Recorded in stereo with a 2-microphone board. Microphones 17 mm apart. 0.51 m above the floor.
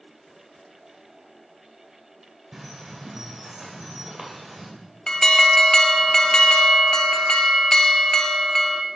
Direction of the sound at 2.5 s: 20° right (ahead or behind).